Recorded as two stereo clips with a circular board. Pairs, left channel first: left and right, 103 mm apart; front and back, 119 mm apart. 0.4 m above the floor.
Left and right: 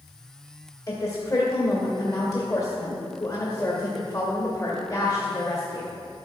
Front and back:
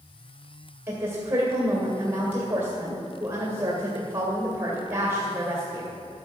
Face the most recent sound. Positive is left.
turn(degrees=125)